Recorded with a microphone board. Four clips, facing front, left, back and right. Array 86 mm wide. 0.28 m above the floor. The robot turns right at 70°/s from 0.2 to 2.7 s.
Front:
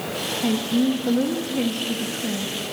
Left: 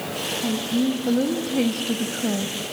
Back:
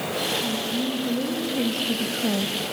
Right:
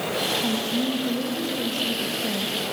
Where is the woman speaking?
Straight ahead, 1.3 m; by 2.6 s 155° left, 1.3 m.